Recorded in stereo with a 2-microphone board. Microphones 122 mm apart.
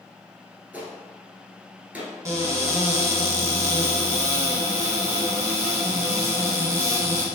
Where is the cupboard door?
25° right (ahead or behind), 1.1 m.